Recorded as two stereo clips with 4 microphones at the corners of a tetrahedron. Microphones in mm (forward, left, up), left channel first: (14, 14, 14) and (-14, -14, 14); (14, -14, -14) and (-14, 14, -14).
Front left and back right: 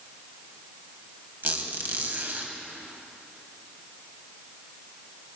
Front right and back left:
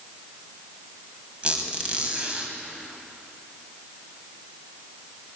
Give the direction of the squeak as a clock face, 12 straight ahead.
6 o'clock.